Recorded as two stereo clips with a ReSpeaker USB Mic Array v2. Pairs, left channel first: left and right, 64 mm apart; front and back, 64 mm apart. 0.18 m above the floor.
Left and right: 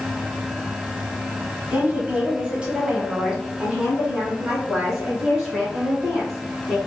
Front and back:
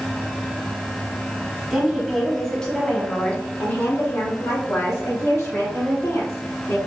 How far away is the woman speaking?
About 1.4 m.